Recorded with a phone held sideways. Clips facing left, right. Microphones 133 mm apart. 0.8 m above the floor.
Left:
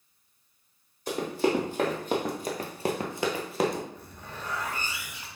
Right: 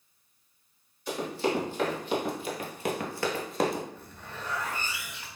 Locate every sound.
1.1 s running footsteps: 45° left (ahead or behind), 2 m; by 3.9 s 5° right (ahead or behind), 1.0 m
4.0 s a zipper: 15° left (ahead or behind), 1.3 m